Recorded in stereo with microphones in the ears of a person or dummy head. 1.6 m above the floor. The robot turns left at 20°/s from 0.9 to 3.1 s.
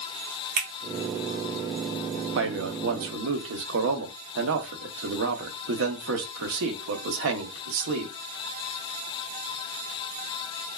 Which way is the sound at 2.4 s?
70° right (ahead or behind).